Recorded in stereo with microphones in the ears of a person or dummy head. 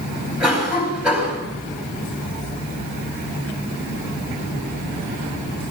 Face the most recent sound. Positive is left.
turn(degrees=-5)  # may be behind; listen again after turning